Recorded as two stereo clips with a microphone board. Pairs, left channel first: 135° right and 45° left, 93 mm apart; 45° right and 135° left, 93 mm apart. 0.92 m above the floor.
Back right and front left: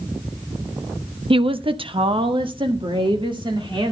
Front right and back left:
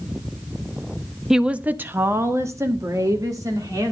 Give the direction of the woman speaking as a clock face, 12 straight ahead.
10 o'clock.